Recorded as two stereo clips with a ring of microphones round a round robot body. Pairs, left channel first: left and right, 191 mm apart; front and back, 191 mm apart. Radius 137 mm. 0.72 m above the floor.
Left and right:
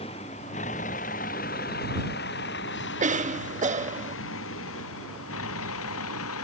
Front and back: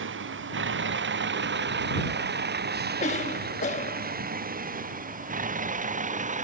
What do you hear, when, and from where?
0.0 s a vehicle: 160° left; by 6.5 s 130° left
3.0 s a cough: 50° right